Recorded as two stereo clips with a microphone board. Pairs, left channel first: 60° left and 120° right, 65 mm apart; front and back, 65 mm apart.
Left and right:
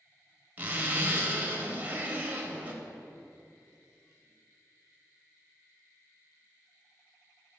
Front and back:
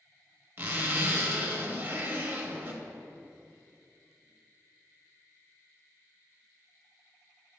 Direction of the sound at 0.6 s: 160° right.